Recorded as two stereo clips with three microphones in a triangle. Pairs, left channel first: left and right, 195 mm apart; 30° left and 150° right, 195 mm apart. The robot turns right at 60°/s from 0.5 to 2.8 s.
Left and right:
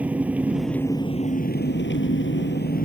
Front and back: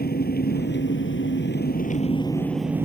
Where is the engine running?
5° right; by 2.9 s 130° left.